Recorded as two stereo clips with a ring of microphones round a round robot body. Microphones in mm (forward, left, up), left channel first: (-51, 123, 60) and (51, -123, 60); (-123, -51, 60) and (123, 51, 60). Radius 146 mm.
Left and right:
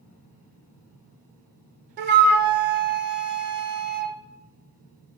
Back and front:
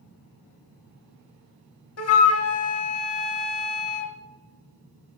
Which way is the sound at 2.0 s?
120° right.